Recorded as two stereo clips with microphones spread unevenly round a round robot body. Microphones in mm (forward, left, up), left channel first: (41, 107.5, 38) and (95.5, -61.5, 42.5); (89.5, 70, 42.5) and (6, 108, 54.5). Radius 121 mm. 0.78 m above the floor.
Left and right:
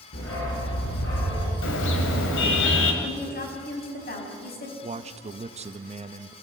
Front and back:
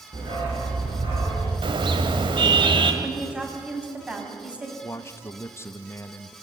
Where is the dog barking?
130° left, 7 m; by 1.5 s 135° left, 6.5 m.